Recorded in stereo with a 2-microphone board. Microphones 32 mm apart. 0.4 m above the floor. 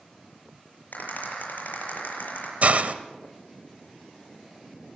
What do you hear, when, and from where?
0.9 s a rattle: 70° left (ahead or behind), 7.5 m
2.6 s a hiss: 50° right (ahead or behind), 1.2 m